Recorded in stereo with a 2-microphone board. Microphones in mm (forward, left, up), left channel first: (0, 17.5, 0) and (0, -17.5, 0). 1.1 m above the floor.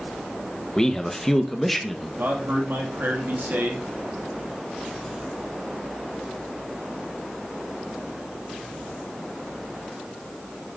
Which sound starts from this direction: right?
A man speaking, at 2.2 s.